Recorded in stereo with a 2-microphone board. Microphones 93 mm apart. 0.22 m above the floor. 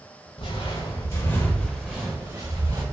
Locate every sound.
0.4 s footsteps: 65° left (ahead or behind), 1.1 m; by 2.8 s 40° right (ahead or behind), 1.3 m